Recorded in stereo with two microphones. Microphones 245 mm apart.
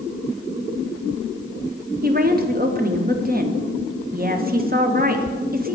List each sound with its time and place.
2.0 s a woman speaking: 35° right (ahead or behind), 0.6 m